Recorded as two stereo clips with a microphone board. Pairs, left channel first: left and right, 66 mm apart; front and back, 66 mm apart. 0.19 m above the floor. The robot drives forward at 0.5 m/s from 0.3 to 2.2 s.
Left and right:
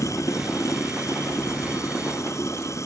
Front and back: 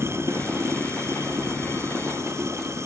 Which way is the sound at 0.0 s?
130° left.